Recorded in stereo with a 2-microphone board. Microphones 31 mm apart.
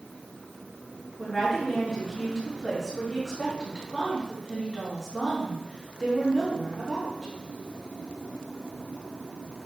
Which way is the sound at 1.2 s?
15° left (ahead or behind).